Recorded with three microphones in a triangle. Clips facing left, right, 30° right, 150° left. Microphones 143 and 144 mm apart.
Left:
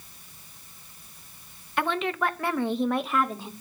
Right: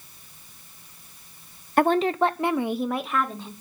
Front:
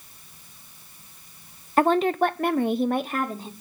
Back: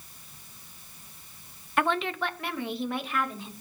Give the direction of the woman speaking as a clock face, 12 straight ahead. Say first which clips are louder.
Right 7 dB, front 8 dB; 2 o'clock.